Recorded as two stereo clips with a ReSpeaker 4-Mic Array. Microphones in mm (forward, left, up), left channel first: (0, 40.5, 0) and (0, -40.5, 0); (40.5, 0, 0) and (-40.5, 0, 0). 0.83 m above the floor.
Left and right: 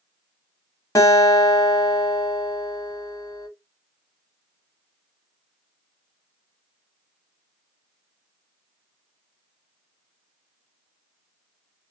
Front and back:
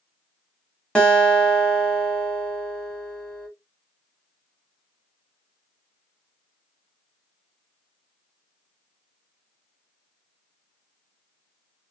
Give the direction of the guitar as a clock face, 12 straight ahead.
10 o'clock.